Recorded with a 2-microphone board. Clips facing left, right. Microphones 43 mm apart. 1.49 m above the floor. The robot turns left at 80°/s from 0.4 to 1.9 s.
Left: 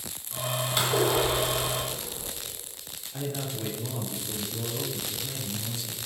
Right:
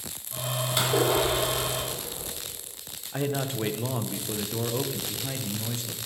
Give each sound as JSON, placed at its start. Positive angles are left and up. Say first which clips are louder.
{"t": 0.8, "sound": "a splash", "louder": "right 1 dB", "azimuth_deg": -10, "distance_m": 3.5}
{"t": 3.1, "sound": "a man speaking", "louder": "right 5 dB", "side_deg": -45, "distance_m": 0.8}